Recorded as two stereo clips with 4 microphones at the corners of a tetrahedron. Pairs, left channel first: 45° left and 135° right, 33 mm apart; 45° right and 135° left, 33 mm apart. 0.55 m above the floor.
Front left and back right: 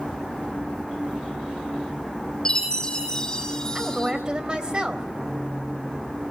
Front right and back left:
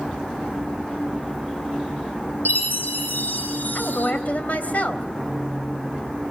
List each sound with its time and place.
2.5 s a chime: 25° right, 5 m
3.8 s a woman speaking: 80° right, 3.5 m